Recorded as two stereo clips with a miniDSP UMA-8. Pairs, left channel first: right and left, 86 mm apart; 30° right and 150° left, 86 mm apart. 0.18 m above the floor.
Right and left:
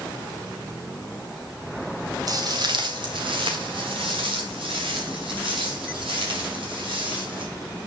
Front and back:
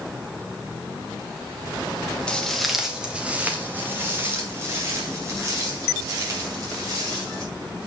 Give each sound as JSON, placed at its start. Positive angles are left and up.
{"t": 2.3, "sound": "footsteps", "azimuth_deg": 50, "distance_m": 1.8}